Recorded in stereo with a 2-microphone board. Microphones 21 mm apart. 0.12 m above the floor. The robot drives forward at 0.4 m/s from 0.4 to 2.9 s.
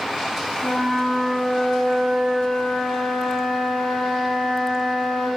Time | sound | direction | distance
0.6 | a flute | 70° left (ahead or behind) | 5.5 m